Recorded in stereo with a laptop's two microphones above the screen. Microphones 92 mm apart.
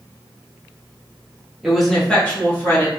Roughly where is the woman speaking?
Centre.